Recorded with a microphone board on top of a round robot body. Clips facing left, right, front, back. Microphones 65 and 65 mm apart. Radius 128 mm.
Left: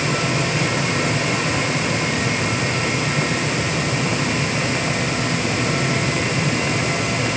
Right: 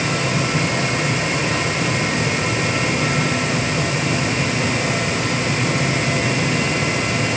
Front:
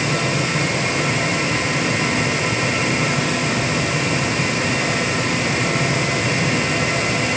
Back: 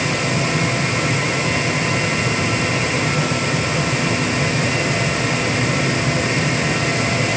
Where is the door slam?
No door slam in this recording.